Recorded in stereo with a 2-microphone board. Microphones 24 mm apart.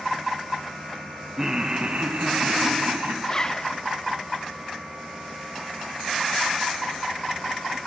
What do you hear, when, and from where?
1.4 s laughter: 20° right (ahead or behind), 0.6 m; by 3.1 s 80° right, 1.5 m
3.2 s a zipper: 25° left (ahead or behind), 0.5 m